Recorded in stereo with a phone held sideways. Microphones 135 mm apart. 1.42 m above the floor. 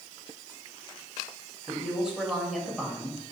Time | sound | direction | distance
1.7 | a woman speaking | 5° right (ahead or behind) | 3 m